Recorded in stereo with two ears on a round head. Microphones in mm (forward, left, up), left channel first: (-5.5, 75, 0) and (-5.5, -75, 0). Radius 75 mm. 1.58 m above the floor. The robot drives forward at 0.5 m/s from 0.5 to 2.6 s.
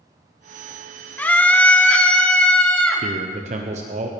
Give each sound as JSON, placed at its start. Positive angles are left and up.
{"t": 1.2, "sound": "a scream", "side_deg": 10, "distance_m": 1.6}
{"t": 3.0, "sound": "a man speaking", "side_deg": -45, "distance_m": 0.9}